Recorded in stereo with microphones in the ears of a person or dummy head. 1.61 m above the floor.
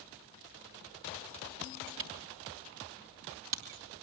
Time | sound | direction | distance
2.0 | a camera shutter | 65° right (ahead or behind) | 3 m